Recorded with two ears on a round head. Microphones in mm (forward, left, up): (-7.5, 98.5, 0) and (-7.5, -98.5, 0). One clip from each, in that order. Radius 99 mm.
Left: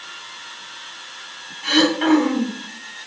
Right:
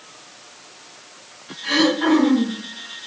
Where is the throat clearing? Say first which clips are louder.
Left 1 dB; 40° left (ahead or behind), 2.5 m.